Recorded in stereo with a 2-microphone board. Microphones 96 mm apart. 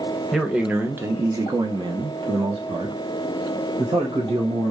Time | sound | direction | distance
0.3 | a man speaking | centre (ahead or behind) | 0.9 m